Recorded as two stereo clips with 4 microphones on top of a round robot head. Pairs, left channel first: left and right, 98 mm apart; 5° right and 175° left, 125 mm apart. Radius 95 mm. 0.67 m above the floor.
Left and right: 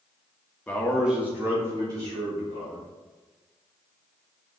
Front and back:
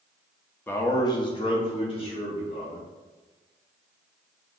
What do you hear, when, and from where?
0.7 s a man speaking: 40° left, 0.8 m; by 2.9 s 45° right, 2 m